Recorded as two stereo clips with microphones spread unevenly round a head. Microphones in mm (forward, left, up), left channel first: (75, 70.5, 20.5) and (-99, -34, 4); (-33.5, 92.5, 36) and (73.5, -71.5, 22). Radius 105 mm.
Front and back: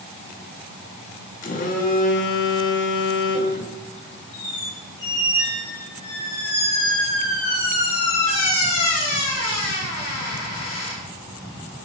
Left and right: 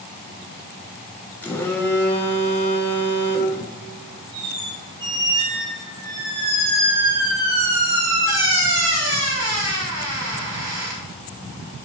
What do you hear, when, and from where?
1.4 s a phone buzzing: 50° left, 0.8 m
4.3 s a squeak: 30° right, 2.5 m